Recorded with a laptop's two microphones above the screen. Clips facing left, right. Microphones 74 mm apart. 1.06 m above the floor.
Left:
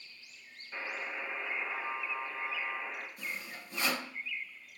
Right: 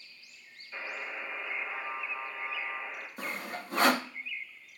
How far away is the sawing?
About 0.6 m.